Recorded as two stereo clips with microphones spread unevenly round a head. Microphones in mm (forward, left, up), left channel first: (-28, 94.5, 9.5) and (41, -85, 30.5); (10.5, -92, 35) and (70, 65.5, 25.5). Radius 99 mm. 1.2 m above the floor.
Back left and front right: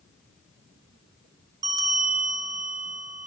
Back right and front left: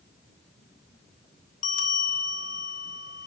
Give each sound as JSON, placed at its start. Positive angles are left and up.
{"t": 1.6, "sound": "a bell", "azimuth_deg": -130, "distance_m": 0.6}